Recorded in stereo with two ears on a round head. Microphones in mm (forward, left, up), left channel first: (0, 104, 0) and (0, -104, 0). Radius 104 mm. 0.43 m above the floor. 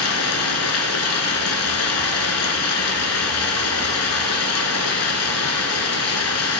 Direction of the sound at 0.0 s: 65° left (ahead or behind).